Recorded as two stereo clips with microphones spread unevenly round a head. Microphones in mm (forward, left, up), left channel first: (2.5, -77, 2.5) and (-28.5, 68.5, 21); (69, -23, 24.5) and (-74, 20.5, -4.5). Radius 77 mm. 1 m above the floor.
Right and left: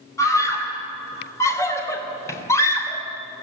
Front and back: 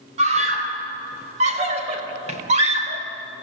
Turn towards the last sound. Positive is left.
turn(degrees=-150)